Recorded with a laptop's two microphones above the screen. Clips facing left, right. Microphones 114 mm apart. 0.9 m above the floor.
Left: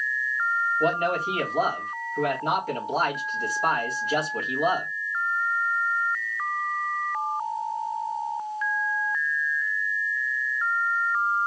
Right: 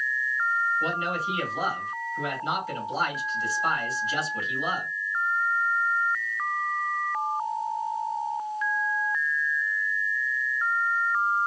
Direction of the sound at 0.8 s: 55° left (ahead or behind).